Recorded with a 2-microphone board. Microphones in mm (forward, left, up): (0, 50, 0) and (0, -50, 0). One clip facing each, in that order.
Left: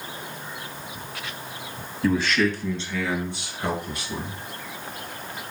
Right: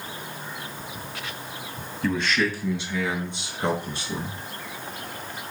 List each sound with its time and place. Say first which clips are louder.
2.0 s a man speaking: left 3 dB; 10° left (ahead or behind), 1.7 m; by 4.3 s 30° right (ahead or behind), 4 m